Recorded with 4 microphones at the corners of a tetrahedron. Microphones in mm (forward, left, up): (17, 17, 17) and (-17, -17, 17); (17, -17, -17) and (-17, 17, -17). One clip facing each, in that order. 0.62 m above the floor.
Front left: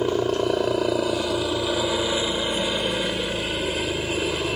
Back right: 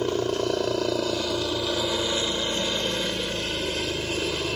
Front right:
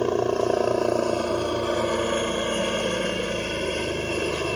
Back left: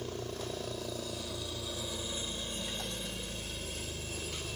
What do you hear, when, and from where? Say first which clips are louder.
0.0 s a helicopter: front left 3 dB, front right 17 dB; 30° right